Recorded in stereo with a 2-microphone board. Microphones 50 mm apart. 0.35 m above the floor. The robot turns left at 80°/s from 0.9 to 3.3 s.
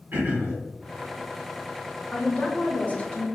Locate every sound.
0.1 s throat clearing: 55° right (ahead or behind), 1.7 m
2.1 s a woman speaking: 155° left, 1.0 m; by 3.2 s 60° left, 1.0 m